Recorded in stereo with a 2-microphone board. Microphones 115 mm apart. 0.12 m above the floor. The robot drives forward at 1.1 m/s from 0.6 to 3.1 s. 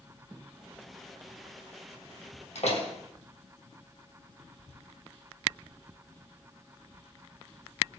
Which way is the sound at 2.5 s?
70° left (ahead or behind).